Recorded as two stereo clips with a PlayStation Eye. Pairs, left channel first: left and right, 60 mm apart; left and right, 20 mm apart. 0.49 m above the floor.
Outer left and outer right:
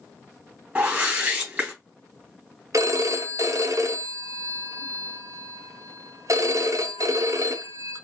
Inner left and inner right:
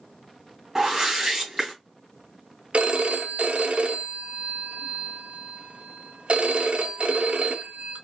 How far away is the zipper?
I don't hear a zipper.